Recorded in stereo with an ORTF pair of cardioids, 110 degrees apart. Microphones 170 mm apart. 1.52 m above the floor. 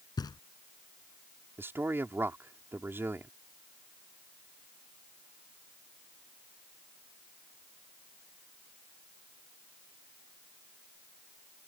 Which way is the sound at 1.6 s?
15° right.